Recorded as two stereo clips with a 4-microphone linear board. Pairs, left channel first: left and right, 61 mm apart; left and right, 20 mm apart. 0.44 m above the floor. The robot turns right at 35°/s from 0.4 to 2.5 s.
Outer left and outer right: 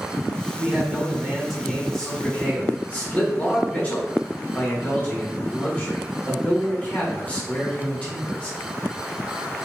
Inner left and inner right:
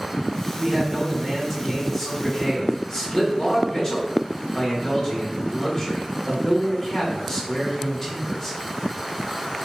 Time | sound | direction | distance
0.6 | a man speaking | 30° right | 1.0 m